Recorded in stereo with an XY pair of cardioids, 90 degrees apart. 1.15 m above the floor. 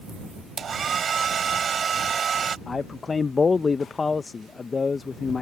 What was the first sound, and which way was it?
A hair dryer, 55° right.